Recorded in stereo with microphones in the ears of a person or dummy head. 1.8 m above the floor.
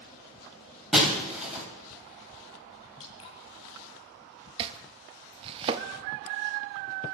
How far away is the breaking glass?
About 3 m.